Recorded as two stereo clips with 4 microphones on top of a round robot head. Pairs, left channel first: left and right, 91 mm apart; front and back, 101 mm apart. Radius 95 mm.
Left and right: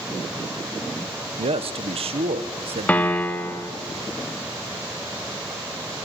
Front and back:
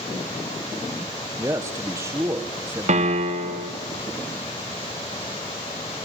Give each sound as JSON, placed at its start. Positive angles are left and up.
{"t": 1.4, "sound": "a man speaking", "azimuth_deg": -110, "distance_m": 1.4}
{"t": 2.9, "sound": "a piano", "azimuth_deg": 165, "distance_m": 2.0}